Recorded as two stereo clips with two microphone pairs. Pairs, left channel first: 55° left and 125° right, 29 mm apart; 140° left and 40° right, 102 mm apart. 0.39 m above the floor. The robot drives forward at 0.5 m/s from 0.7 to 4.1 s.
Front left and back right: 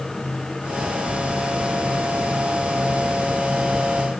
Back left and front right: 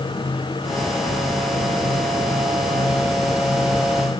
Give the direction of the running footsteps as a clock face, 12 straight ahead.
No running footsteps in this recording.